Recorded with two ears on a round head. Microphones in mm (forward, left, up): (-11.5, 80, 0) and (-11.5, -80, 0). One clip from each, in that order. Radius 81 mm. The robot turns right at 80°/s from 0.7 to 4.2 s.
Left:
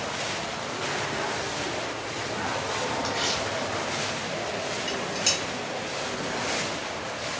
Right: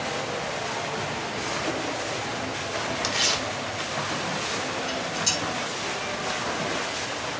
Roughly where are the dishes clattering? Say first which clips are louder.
Left 1 dB; centre.